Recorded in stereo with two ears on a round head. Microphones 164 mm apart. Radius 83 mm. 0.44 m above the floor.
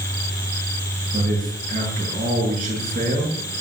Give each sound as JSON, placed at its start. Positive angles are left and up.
{"t": 1.1, "sound": "a man speaking", "side_deg": -45, "distance_m": 7.5}